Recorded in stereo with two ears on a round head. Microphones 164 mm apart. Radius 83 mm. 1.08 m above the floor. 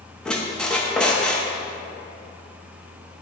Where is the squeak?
5° left (ahead or behind), 0.6 m.